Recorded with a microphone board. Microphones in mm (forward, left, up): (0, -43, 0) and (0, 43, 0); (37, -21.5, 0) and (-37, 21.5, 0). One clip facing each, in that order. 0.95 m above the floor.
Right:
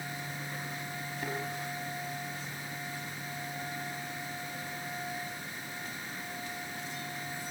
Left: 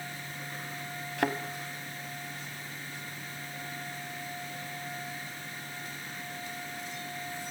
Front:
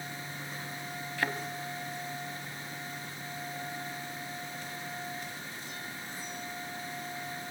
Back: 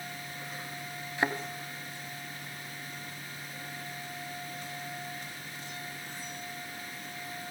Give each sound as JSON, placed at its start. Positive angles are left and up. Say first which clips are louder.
{"t": 1.2, "sound": "a thud", "louder": "left 8 dB, back 3 dB", "azimuth_deg": 85, "distance_m": 2.5}